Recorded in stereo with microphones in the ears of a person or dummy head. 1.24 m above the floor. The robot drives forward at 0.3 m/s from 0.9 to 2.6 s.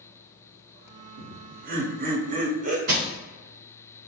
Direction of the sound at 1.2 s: 45° right (ahead or behind).